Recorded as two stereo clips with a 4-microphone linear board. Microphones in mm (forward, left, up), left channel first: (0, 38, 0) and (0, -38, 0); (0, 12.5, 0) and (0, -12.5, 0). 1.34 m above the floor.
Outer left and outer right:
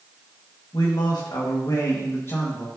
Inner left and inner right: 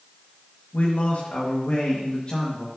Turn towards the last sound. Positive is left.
turn(degrees=30)  # may be behind; listen again after turning